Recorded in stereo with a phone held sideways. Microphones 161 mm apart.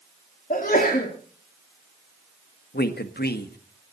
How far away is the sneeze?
About 2.5 m.